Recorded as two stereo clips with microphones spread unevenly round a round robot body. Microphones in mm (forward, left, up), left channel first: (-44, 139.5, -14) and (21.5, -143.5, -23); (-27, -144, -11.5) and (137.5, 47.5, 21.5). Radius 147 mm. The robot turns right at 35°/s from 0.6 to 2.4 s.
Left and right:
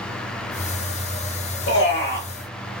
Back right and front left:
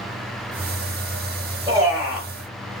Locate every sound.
1.7 s a man speaking: 130° left, 1.1 m; by 2.3 s 150° left, 1.1 m